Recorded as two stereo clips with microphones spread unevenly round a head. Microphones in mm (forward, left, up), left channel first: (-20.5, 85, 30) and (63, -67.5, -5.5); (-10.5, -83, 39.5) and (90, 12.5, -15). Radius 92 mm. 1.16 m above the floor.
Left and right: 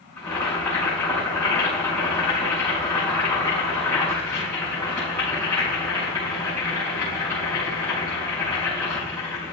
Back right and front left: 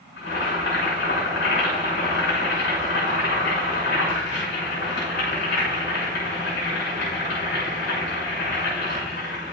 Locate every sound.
0.2 s boiling: 160° right, 5.5 m